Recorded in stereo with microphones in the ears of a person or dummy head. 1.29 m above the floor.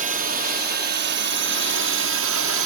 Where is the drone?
40° right (ahead or behind); by 2.7 s 65° right (ahead or behind).